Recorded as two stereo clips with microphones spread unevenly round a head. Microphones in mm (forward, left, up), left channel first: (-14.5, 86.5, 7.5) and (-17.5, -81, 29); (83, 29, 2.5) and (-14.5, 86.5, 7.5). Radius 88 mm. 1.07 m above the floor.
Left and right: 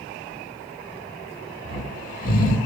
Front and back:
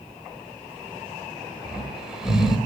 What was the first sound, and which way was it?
Snoring, 70° left.